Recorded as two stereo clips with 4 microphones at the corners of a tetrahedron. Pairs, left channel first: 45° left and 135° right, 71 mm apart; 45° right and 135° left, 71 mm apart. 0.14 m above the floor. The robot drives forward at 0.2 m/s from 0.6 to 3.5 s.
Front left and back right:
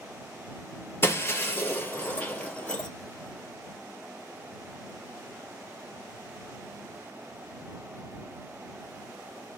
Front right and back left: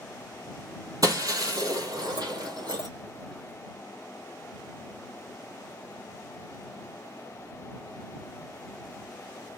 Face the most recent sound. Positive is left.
turn(degrees=125)